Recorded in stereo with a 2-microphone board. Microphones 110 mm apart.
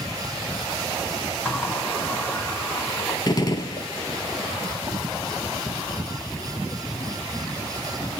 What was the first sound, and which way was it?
A sliding door, 20° left (ahead or behind).